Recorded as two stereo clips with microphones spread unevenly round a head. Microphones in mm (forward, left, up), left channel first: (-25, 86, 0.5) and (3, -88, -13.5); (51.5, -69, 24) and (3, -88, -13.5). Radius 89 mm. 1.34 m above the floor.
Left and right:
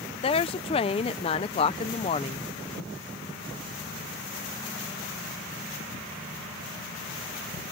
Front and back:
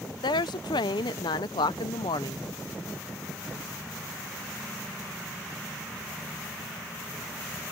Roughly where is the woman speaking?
Ahead left.